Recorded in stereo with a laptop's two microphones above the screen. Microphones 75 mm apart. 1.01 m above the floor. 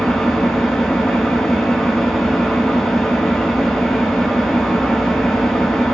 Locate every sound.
0.0 s an engine running: centre (ahead or behind), 4 m